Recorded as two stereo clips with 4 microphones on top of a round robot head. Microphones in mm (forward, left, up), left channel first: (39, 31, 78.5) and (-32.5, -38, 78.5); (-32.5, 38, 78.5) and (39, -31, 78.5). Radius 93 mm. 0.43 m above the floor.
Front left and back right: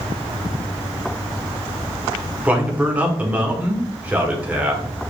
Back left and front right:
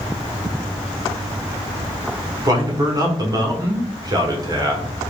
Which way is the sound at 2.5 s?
65° right.